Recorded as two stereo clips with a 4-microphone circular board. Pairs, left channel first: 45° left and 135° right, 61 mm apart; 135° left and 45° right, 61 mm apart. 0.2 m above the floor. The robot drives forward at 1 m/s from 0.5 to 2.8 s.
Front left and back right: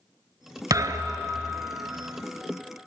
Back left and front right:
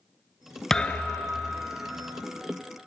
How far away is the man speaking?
I don't hear a man speaking.